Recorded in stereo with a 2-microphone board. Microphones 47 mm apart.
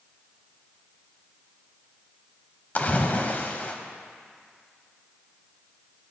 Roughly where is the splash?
Left.